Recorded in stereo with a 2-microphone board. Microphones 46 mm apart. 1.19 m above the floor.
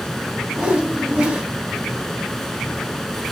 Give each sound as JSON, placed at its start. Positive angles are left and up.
{"t": 0.6, "sound": "a whoosh", "side_deg": -20, "distance_m": 2.5}